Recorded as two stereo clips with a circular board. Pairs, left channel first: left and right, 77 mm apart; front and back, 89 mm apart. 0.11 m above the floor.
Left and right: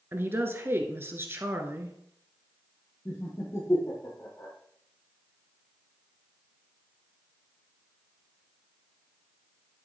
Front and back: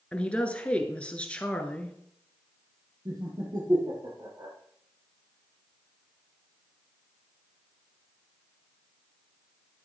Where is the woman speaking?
65° right, 1.3 m.